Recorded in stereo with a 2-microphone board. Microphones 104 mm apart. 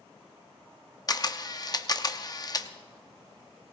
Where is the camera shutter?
40° left (ahead or behind), 0.7 m.